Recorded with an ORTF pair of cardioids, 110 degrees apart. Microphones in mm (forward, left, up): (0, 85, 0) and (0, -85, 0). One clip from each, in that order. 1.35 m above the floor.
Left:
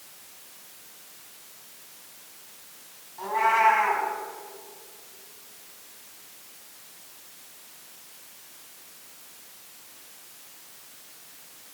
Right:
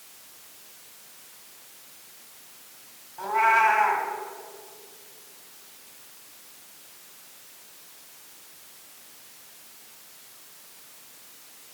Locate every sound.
3.2 s a cat meowing: 20° right, 3 m